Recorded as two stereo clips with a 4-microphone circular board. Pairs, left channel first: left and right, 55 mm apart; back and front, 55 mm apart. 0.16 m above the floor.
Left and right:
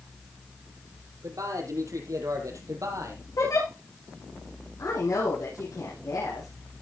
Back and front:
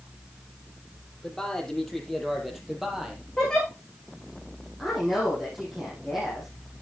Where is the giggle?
100° left, 7.5 m.